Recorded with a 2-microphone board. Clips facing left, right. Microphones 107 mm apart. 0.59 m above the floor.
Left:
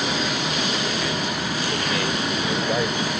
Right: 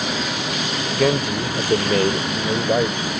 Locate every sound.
0.9 s a man speaking: 70° right (ahead or behind); by 3.2 s 15° right (ahead or behind)